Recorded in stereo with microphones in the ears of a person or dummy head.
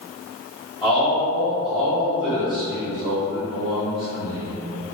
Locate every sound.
0.8 s a man speaking: 5° right (ahead or behind), 1.4 m